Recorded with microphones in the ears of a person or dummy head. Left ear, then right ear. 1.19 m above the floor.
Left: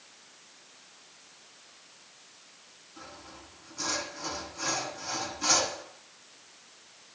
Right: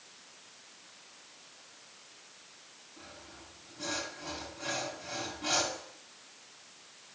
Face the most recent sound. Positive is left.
turn(degrees=75)  # may be behind; listen again after turning